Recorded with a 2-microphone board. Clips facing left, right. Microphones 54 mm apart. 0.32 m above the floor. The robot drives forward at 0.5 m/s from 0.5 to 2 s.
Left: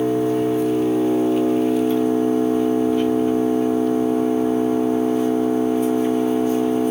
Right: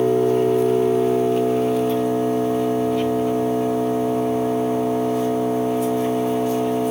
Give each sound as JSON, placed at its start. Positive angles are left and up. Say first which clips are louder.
{"t": 0.0, "sound": "an engine running", "louder": "right 2 dB", "side_deg": -65, "distance_m": 2.0}